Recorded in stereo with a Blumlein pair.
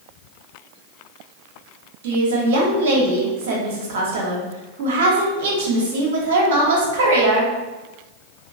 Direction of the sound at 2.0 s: 55° right.